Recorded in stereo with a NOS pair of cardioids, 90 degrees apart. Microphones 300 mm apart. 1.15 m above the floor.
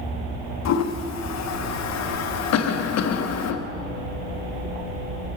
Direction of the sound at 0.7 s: 60° left.